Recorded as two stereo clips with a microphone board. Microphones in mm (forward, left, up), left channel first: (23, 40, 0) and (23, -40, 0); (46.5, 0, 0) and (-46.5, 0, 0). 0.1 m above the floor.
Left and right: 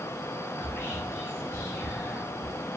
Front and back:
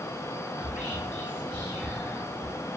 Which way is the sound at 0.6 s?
115° left.